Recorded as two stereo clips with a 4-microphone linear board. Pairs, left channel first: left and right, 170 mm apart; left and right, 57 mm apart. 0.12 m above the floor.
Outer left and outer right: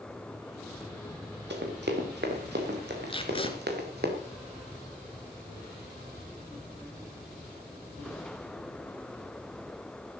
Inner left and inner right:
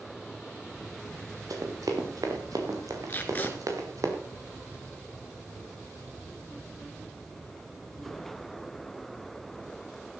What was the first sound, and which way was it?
Running footsteps, 90° right.